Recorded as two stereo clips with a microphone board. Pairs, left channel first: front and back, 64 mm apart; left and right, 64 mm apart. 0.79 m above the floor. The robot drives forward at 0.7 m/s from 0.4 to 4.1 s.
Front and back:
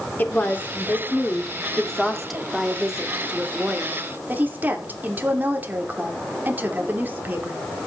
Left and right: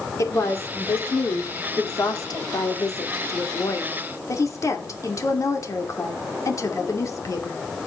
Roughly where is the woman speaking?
Ahead left.